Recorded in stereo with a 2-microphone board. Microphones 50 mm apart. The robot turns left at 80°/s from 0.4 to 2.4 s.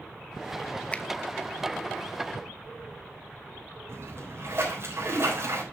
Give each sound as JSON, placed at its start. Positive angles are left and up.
{"t": 0.9, "sound": "a finger snap", "side_deg": 25, "distance_m": 0.9}
{"t": 3.9, "sound": "a splash", "side_deg": -55, "distance_m": 5.0}